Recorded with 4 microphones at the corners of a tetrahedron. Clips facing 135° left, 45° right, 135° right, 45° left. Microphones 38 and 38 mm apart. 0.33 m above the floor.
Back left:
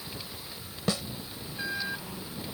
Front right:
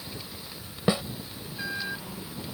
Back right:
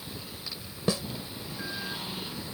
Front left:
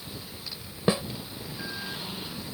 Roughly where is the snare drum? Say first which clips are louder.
Front right 5 dB, front left 4 dB; ahead.